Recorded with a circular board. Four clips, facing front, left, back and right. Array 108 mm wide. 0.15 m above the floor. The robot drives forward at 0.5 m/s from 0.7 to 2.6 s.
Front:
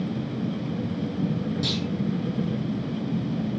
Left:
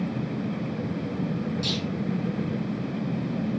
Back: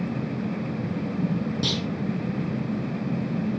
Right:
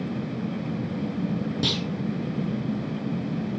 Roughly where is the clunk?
Behind right.